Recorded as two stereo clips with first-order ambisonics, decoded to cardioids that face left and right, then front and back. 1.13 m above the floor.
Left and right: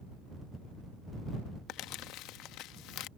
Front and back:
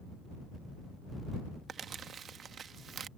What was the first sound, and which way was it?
Crumpling, 120° left.